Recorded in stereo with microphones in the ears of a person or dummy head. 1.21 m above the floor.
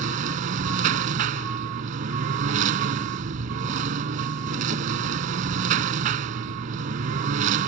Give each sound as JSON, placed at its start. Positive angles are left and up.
{"t": 0.0, "sound": "a lawn mower", "side_deg": -45}